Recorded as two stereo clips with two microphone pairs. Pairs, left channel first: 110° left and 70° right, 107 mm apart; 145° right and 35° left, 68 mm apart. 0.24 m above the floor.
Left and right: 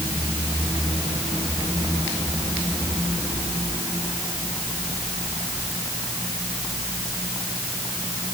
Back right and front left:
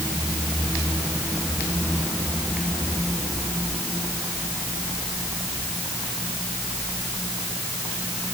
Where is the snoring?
No snoring in this recording.